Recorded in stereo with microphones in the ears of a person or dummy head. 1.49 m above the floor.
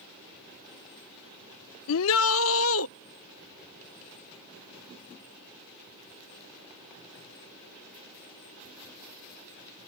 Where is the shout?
75° left (ahead or behind).